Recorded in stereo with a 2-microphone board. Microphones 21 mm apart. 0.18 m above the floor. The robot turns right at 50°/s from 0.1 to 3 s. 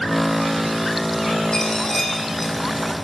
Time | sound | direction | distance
1.5 | a dropped coin | 150° left | 3.5 m